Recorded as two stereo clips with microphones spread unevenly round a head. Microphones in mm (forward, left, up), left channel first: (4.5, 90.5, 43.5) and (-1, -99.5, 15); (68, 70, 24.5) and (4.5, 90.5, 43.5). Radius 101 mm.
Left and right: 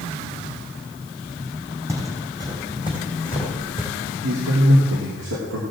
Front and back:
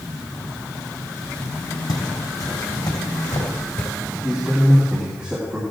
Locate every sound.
1.9 s footsteps: 15° right, 3.5 m; by 3.9 s 30° right, 4.5 m
4.2 s a man speaking: 105° right, 3 m